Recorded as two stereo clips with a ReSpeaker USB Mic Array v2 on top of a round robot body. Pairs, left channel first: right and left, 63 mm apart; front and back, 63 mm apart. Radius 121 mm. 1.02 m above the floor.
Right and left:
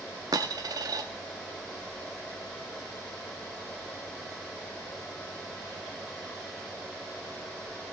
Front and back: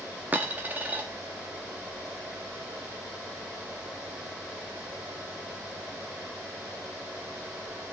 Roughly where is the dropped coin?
Behind left.